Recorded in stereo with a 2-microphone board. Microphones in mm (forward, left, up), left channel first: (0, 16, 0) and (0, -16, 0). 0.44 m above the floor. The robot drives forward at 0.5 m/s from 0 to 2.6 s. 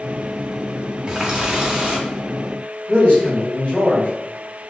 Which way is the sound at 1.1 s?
20° right (ahead or behind).